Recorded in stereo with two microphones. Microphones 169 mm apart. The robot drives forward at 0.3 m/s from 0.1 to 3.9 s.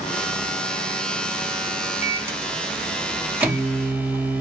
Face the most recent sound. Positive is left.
turn(degrees=-10)  # may be behind; listen again after turning